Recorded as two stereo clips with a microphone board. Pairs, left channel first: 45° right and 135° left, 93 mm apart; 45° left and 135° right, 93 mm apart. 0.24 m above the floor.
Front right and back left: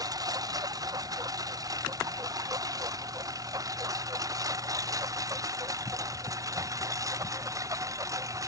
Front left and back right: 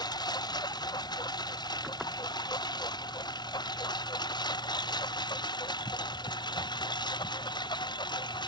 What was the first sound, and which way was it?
A lawn mower, 85° left.